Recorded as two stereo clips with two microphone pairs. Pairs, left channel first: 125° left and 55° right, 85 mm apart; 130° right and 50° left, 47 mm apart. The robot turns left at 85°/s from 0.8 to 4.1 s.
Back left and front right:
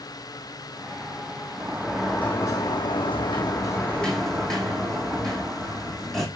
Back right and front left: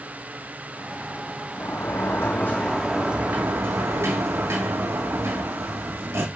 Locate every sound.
1.6 s a sliding door: 105° right, 3.5 m; by 6.3 s 40° left, 3.5 m